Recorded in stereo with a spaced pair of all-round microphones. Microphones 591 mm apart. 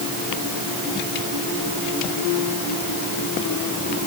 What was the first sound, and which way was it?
Only background noise.